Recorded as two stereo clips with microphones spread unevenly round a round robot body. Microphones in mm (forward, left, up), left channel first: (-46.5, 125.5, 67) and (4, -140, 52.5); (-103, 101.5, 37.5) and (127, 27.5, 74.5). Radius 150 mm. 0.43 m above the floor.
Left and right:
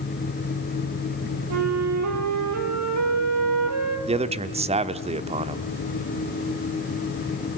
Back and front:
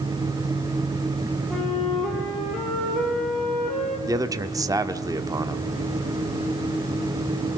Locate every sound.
1.5 s a flute: 105° right, 3 m
4.1 s a man speaking: 95° right, 1.0 m